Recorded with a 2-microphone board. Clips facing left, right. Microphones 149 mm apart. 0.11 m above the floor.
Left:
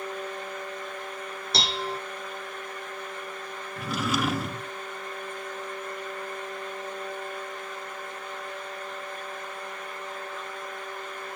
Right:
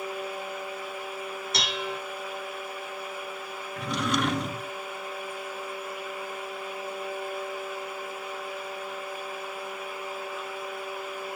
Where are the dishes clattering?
30° left (ahead or behind), 0.9 m.